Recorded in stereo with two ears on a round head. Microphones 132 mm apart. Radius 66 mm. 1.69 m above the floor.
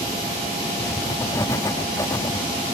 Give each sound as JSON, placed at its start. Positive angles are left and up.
{"t": 0.8, "sound": "writing", "side_deg": 20}